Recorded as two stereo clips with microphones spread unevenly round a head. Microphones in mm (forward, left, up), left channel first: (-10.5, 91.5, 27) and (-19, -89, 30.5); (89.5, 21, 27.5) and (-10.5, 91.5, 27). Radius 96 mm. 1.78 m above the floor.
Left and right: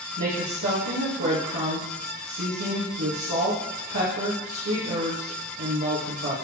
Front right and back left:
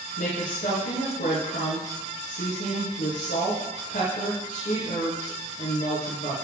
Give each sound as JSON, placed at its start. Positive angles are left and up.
{"t": 0.2, "sound": "a woman speaking", "azimuth_deg": -80, "distance_m": 2.0}